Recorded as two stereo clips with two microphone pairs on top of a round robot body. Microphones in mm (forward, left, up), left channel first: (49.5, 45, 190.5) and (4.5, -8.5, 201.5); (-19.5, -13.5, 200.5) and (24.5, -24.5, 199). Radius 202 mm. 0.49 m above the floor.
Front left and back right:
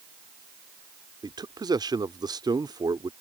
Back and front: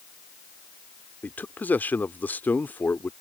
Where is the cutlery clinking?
No cutlery clinking in this recording.